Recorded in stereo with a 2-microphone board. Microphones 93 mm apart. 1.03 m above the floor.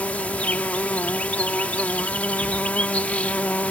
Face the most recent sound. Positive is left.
turn(degrees=15)  # may be behind; listen again after turning